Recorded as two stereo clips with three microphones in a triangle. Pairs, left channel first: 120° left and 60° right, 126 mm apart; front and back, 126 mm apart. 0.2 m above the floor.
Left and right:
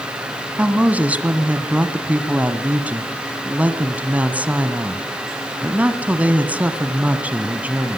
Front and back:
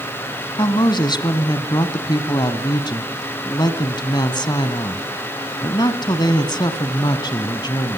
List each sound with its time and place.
0.6 s a woman speaking: 10° left, 1.4 m